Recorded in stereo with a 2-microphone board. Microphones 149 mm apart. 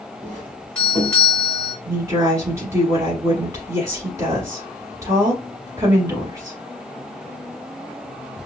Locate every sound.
0.2 s a doorbell: 5° left (ahead or behind), 1.5 m
1.9 s a woman speaking: 20° right (ahead or behind), 1.1 m